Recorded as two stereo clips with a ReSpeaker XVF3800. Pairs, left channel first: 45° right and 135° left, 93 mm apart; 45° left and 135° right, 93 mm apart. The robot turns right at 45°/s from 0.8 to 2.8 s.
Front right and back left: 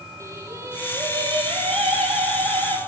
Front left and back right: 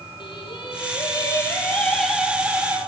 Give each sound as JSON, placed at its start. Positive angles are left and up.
{"t": 0.2, "sound": "singing", "azimuth_deg": 75, "distance_m": 5.5}